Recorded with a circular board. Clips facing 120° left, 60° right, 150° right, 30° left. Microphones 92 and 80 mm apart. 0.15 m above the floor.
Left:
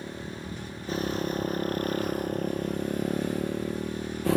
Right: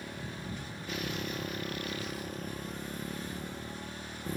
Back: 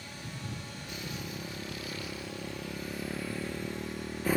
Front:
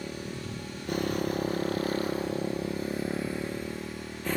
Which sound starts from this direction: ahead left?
A motorcycle, at 0.0 s.